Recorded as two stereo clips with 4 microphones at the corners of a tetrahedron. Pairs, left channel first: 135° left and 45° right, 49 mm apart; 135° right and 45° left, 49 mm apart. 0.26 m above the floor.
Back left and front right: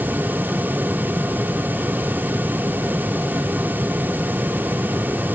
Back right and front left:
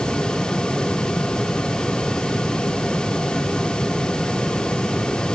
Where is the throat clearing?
No throat clearing in this recording.